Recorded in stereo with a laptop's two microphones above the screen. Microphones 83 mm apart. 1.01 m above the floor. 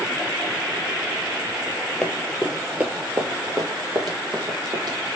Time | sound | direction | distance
2.0 | running footsteps | 10° left (ahead or behind) | 1.2 m